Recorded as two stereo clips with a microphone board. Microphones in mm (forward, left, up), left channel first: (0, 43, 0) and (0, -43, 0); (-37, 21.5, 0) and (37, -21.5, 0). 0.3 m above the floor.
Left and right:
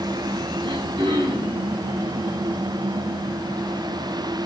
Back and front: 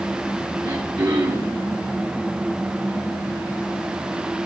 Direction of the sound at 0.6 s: 70° right.